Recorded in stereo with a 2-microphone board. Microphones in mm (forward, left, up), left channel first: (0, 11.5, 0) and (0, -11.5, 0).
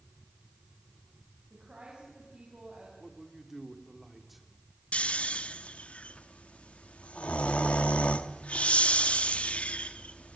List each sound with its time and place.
1.5 s a woman speaking: 45° right (ahead or behind), 6 m
3.0 s a man speaking: 10° right (ahead or behind), 3 m
4.9 s snoring: 75° left (ahead or behind), 1.1 m